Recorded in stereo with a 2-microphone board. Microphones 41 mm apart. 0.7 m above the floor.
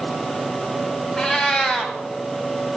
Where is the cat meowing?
15° left (ahead or behind), 1.4 m.